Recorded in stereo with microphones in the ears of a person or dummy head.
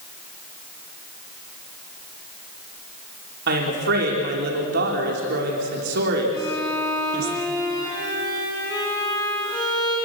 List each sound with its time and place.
3.5 s a woman speaking: 55° right (ahead or behind), 4 m
6.3 s a violin: 25° left (ahead or behind), 8.5 m